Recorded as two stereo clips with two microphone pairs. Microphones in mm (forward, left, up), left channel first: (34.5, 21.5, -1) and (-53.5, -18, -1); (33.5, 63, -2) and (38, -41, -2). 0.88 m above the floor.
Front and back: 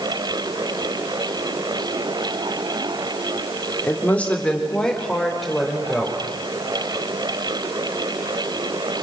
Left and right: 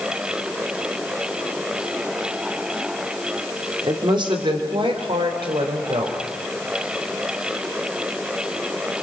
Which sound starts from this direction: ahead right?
A woman speaking, at 3.8 s.